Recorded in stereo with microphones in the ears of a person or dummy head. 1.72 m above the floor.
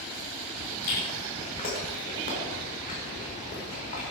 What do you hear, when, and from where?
0.8 s chewing: 40° left (ahead or behind), 5 m